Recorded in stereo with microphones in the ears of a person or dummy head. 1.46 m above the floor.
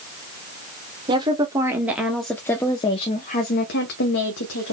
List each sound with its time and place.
1.1 s a woman speaking: 30° right (ahead or behind), 1.1 m; by 4.7 s 75° left (ahead or behind), 1.2 m